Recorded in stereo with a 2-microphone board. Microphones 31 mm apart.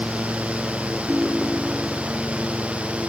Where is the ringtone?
70° right (ahead or behind).